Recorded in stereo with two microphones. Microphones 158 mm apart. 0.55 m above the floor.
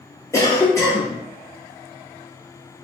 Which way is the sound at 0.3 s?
20° left (ahead or behind).